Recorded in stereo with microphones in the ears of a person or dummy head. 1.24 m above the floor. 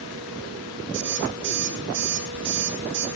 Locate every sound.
0.9 s an alarm clock: 70° right (ahead or behind), 8.5 m